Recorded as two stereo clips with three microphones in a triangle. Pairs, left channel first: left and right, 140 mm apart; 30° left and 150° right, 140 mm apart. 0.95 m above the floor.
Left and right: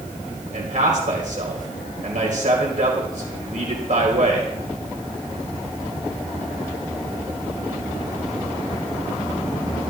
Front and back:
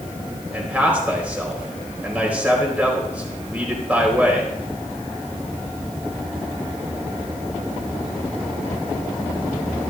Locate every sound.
0.5 s a man speaking: 70° right, 3.5 m